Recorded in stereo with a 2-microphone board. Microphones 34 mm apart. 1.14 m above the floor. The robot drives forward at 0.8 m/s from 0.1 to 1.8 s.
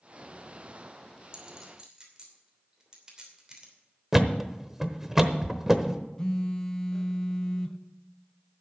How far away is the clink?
About 2.5 m.